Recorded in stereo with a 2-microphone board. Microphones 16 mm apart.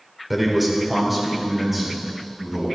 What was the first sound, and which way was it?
A man speaking, 5° right (ahead or behind).